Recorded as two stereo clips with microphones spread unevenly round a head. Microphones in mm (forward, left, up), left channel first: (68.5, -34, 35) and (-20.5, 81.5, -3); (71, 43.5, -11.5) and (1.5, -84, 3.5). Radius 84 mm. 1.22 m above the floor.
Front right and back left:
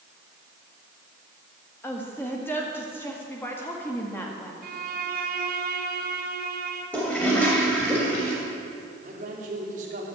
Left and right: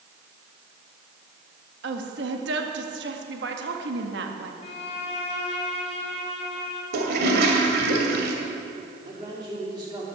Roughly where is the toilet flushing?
Behind right.